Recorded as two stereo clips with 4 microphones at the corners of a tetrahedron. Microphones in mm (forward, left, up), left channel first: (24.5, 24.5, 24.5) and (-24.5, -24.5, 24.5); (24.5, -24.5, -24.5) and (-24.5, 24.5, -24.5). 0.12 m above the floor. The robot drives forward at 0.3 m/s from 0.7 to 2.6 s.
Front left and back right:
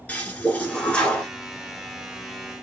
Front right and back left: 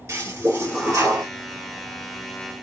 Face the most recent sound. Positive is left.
turn(degrees=130)